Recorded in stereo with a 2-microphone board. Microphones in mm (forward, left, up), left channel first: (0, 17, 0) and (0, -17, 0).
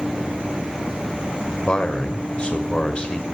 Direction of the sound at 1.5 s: 35° left (ahead or behind).